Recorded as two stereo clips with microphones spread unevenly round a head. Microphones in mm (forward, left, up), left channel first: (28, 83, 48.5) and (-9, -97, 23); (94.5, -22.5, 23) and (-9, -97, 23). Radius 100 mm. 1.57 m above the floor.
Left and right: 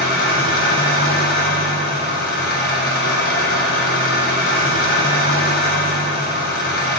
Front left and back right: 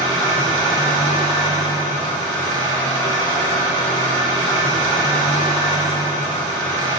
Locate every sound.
0.0 s an engine running: 115° left, 1.0 m